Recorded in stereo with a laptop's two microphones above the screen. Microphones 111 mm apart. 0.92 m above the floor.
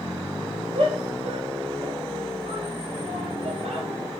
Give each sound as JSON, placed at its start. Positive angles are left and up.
{"t": 0.8, "sound": "a shout", "side_deg": -55, "distance_m": 4.5}